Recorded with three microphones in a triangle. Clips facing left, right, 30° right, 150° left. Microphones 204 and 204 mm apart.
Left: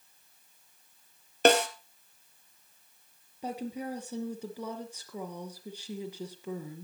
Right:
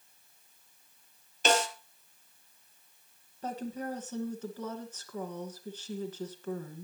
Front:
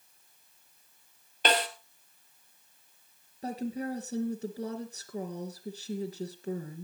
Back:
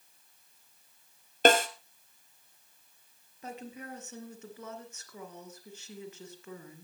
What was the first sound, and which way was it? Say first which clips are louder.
A snare drum: left 6 dB, back 6 dB; 110° left.